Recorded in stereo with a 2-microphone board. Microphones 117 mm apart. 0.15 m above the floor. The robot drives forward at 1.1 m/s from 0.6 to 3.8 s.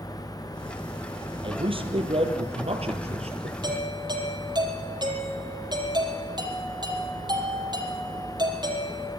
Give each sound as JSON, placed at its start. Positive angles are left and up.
{"t": 1.4, "sound": "a man speaking", "side_deg": -50, "distance_m": 5.0}
{"t": 3.6, "sound": "a doorbell", "side_deg": -40, "distance_m": 5.0}